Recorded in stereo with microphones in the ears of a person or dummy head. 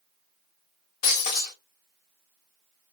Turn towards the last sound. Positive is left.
turn(degrees=40)  # may be behind; listen again after turning